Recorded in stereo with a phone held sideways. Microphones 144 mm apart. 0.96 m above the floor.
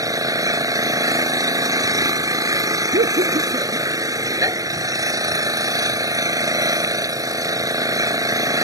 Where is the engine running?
25° right (ahead or behind).